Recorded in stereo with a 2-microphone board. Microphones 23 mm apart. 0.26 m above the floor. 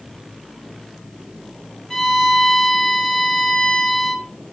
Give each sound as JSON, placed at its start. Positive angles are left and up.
{"t": 1.9, "sound": "a violin", "side_deg": 20, "distance_m": 2.0}